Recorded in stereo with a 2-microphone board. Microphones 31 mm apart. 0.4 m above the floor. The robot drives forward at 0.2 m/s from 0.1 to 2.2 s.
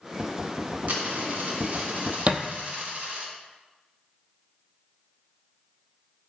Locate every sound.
0.9 s a dropped coin: 60° right (ahead or behind), 1.4 m; by 3.3 s 50° right (ahead or behind), 1.5 m
2.3 s a thud: 40° right (ahead or behind), 0.7 m